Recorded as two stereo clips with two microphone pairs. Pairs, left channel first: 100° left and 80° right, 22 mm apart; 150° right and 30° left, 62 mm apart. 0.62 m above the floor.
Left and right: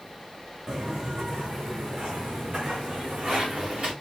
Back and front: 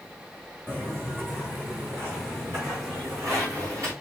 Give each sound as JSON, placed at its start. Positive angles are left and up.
{"t": 0.7, "sound": "footsteps", "azimuth_deg": -25, "distance_m": 3.0}